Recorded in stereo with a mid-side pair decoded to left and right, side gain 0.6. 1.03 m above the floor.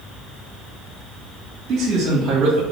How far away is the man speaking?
About 0.9 m.